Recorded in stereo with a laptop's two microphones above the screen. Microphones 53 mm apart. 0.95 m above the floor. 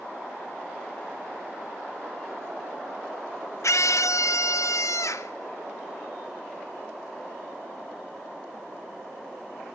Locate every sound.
3.6 s a scream: 75° left (ahead or behind), 0.7 m